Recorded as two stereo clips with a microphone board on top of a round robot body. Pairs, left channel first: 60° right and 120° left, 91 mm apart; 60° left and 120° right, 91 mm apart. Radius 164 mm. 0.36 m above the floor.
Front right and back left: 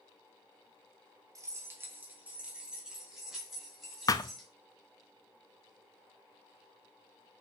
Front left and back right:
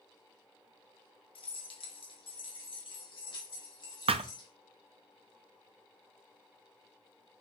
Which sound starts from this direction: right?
A thud, at 4.1 s.